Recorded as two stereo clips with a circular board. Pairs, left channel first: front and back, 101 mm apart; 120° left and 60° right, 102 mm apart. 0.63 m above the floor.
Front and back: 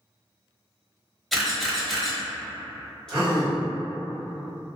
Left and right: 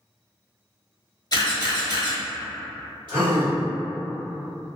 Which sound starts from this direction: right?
A gasp, at 3.1 s.